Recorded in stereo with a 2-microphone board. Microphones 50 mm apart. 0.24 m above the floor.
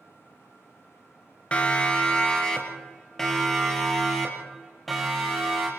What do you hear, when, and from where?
1.5 s a siren: 25° left (ahead or behind), 3 m; by 5.7 s centre (ahead or behind), 7 m